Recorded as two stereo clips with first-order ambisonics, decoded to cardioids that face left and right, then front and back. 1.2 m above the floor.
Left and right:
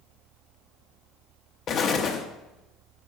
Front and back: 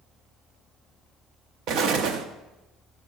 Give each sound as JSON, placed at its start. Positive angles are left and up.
{"t": 1.7, "sound": "an explosion", "azimuth_deg": 145, "distance_m": 1.0}